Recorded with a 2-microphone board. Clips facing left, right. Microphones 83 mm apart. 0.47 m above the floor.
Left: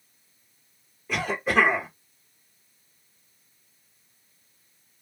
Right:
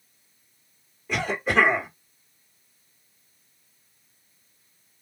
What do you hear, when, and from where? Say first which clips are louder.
1.1 s a cough: even; 5° right (ahead or behind), 1.1 m